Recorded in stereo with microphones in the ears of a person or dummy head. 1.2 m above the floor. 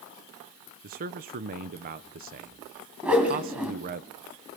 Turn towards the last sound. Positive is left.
turn(degrees=-10)  # may be behind; listen again after turning